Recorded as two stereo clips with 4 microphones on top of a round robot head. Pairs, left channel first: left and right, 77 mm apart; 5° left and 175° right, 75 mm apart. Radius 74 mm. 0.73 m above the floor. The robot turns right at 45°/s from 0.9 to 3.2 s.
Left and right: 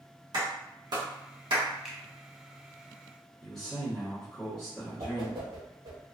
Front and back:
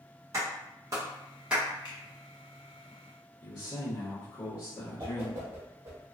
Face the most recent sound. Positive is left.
turn(degrees=-115)